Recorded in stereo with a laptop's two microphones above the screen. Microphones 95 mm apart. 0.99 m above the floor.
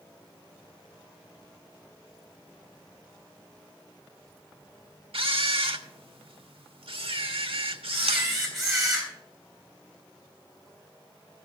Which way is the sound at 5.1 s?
80° right.